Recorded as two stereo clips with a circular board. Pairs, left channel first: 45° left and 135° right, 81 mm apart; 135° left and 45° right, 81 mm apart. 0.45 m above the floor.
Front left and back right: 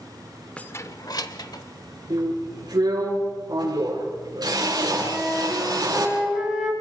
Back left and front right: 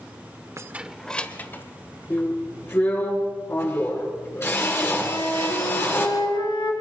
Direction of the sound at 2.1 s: 170° right.